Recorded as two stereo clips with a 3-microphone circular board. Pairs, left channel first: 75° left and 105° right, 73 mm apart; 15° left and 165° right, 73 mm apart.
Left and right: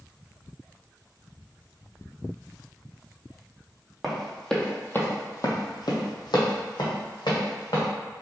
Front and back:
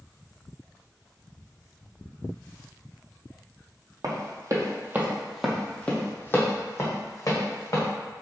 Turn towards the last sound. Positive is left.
turn(degrees=55)